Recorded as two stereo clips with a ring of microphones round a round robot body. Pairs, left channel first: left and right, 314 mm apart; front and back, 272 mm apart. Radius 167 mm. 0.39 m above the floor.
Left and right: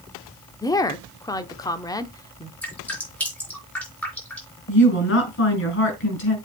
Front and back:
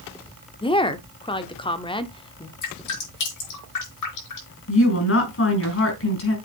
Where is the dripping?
5° left, 4.5 m.